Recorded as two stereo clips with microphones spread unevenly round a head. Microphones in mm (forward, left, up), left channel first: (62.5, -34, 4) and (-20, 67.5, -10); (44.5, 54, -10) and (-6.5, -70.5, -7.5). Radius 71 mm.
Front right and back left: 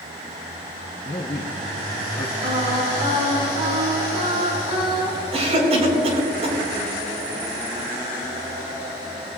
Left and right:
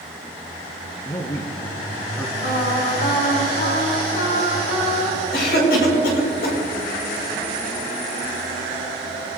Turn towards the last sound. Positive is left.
turn(degrees=90)